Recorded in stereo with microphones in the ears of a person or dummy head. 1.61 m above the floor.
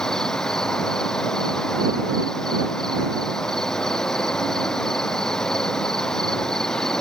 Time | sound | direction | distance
0.0 | an insect | 5° left (ahead or behind) | ?